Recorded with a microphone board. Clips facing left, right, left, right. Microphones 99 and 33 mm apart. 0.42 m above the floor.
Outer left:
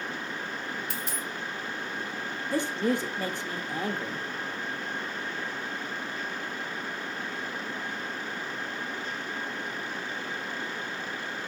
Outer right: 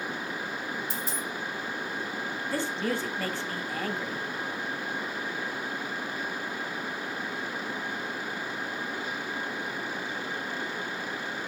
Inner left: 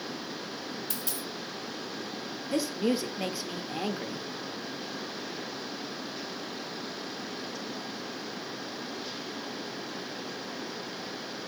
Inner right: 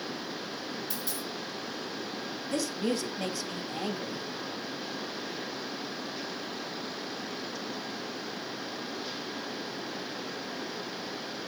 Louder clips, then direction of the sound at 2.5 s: Outer left 4 dB, inner left 3 dB; 20° left (ahead or behind).